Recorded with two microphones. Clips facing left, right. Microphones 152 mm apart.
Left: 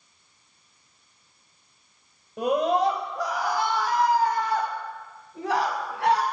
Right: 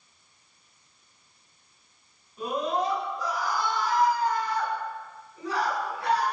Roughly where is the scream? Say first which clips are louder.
Left 6 dB; left.